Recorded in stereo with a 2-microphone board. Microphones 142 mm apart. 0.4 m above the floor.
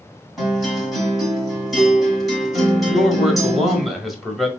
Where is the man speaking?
Centre (ahead or behind), 1.6 m.